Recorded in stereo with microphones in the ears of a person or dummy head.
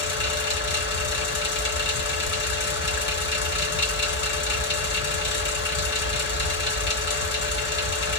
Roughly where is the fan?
Left.